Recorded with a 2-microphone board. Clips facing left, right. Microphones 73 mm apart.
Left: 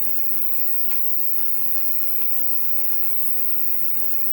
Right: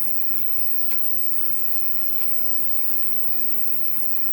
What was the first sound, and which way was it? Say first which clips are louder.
An insect: even; 60° right (ahead or behind).